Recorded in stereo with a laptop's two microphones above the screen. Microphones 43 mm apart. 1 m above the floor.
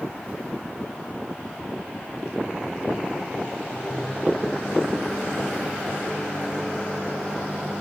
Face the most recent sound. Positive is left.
turn(degrees=35)  # may be behind; listen again after turning